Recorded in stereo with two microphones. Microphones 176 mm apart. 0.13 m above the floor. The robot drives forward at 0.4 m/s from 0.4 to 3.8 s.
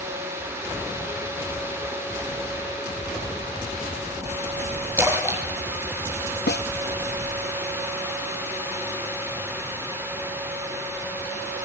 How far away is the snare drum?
About 0.7 m.